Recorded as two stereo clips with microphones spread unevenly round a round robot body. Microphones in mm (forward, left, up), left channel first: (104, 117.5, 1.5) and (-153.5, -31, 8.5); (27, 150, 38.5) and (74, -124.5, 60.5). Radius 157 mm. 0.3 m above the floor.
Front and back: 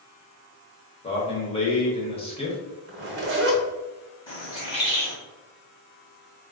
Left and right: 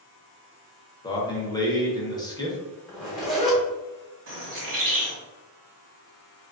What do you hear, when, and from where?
1.0 s a man speaking: 60° left, 0.9 m
2.9 s a zipper: 175° right, 1.0 m
4.3 s a bird: 45° right, 1.5 m